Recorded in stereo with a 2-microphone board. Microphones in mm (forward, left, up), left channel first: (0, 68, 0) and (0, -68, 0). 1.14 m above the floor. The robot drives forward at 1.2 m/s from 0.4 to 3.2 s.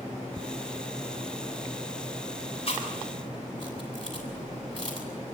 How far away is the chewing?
About 7 m.